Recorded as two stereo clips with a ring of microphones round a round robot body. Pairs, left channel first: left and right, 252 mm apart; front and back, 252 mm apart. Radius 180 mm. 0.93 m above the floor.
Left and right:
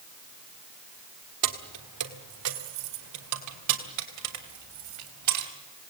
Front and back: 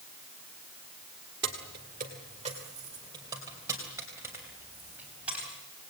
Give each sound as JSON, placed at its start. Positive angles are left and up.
{"t": 1.4, "sound": "keys jangling", "azimuth_deg": -120, "distance_m": 1.4}